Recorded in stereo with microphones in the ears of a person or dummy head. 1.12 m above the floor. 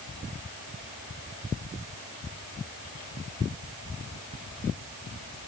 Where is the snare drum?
No snare drum in this recording.